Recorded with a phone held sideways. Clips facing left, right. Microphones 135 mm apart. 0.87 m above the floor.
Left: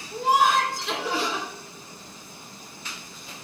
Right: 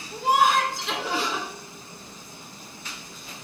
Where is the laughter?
Centre (ahead or behind), 2.5 m.